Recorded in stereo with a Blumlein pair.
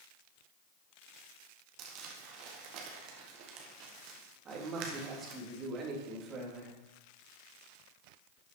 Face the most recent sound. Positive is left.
turn(degrees=-25)